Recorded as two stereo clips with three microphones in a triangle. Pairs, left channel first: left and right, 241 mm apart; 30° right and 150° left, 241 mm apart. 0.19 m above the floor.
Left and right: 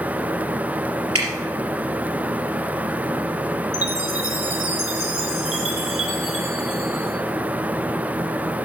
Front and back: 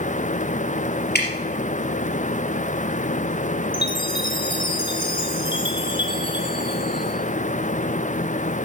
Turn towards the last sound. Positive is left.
turn(degrees=-100)